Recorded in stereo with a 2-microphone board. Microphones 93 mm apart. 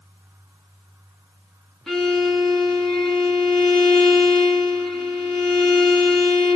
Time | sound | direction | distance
1.9 | a violin | 5° left (ahead or behind) | 1.2 m